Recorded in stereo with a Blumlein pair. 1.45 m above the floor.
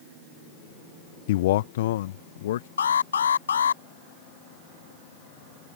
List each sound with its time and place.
1.3 s a man speaking: 55° left; by 2.7 s 60° left
2.8 s an alarm: 70° left